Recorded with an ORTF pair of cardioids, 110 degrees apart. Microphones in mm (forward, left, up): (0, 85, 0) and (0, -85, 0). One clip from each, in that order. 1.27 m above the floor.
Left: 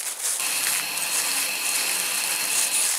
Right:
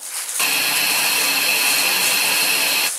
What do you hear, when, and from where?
0.4 s a hiss: 50° right, 0.5 m